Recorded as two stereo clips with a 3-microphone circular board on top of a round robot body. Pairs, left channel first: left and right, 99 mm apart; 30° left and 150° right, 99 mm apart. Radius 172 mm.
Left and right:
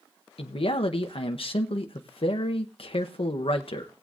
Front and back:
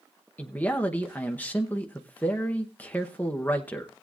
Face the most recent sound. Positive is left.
turn(degrees=100)